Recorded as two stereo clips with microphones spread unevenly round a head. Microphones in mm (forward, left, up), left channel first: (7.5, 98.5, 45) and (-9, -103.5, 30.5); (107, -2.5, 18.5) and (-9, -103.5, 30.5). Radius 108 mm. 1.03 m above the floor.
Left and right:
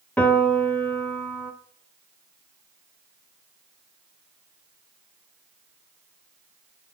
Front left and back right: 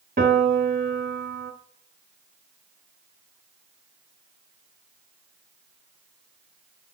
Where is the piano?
170° left, 1.2 m.